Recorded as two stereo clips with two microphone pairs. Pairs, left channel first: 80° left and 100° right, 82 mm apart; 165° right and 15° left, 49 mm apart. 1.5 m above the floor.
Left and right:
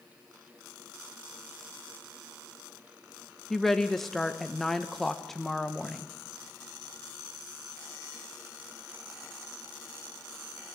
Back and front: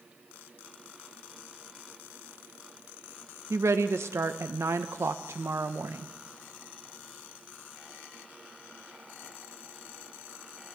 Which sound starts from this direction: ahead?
A woman speaking, at 3.5 s.